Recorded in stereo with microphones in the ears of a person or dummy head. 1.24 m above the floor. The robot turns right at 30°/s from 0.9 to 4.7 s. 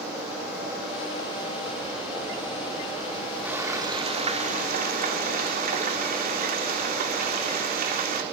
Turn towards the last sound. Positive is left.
turn(degrees=-135)